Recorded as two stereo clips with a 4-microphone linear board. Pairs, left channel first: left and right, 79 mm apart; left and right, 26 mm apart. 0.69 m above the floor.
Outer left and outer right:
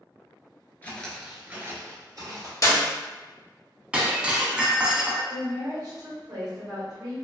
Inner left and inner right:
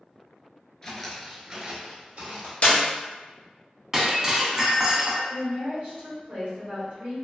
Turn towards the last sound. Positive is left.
turn(degrees=-50)  # may be behind; listen again after turning